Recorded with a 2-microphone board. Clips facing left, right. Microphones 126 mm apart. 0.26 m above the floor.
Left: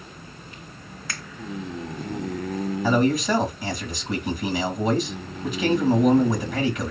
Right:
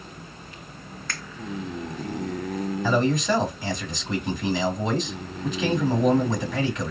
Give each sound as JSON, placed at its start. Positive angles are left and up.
{"t": 1.1, "sound": "a finger snap", "side_deg": 5, "distance_m": 0.9}
{"t": 2.8, "sound": "a man speaking", "side_deg": 5, "distance_m": 1.1}